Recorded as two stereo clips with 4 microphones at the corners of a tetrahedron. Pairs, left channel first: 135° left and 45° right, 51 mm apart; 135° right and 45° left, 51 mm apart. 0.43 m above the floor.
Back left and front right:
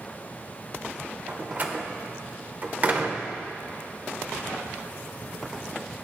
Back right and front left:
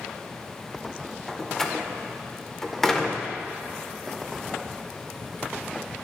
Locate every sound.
1.3 s a door slam: 60° right, 1.0 m